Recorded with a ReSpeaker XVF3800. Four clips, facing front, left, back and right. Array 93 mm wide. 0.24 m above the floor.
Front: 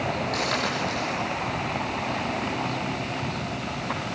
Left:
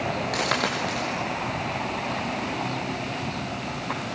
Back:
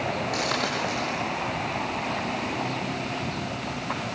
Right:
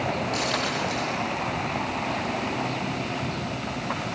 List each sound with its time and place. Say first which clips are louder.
0.3 s a dropped coin: left 1 dB, even; 100° left, 6.5 m